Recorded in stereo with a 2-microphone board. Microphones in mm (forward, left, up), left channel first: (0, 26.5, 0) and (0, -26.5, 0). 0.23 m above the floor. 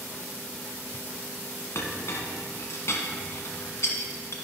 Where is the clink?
60° left (ahead or behind), 1.5 m.